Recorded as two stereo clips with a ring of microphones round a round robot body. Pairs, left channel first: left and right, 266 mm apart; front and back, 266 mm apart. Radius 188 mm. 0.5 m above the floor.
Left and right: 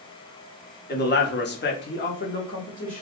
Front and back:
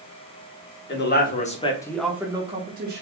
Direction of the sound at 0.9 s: 40° left.